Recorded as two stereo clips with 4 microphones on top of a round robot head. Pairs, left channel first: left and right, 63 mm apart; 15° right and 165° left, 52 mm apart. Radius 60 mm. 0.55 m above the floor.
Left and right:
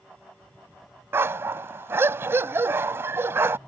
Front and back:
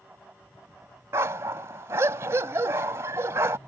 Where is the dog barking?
140° right.